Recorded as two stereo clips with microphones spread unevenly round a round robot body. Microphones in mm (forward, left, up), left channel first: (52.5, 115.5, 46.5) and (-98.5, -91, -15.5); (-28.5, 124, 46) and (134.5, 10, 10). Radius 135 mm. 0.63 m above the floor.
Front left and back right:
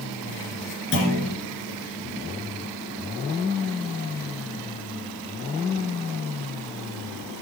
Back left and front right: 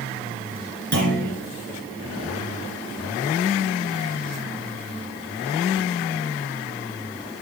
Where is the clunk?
Straight ahead, 3 m.